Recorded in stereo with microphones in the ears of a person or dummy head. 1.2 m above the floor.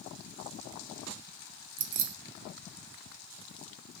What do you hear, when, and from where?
1.8 s keys jangling: 75° right (ahead or behind), 0.6 m